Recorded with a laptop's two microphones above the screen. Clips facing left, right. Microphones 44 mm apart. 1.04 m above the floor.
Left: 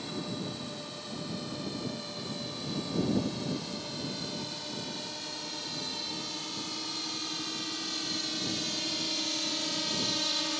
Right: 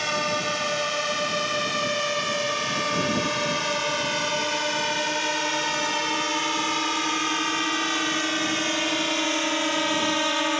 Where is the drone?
75° right (ahead or behind); by 10.6 s 50° right (ahead or behind).